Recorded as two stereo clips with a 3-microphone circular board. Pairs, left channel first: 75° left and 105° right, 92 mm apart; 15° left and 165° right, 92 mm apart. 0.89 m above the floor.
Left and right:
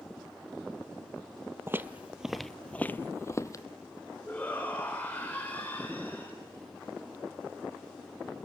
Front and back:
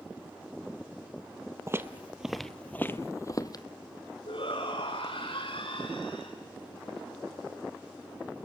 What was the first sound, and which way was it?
Footsteps, 140° right.